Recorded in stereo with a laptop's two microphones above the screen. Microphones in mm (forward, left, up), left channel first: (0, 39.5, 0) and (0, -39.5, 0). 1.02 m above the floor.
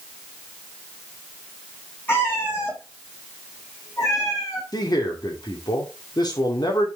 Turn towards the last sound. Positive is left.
turn(degrees=55)  # may be behind; listen again after turning